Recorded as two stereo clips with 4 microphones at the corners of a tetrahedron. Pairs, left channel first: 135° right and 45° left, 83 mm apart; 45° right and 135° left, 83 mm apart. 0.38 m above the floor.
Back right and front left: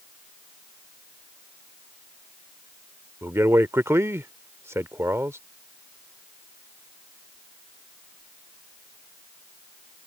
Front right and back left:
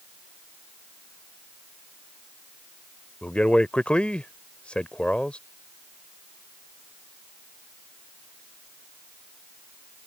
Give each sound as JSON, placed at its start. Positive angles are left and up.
{"t": 3.2, "sound": "a man speaking", "azimuth_deg": 20}